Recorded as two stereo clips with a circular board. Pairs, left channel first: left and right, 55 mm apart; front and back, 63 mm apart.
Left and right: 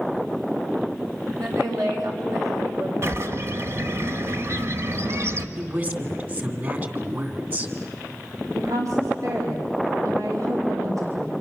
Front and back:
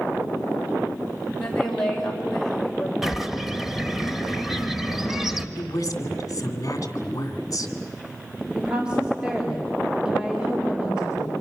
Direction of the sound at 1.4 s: 80° right.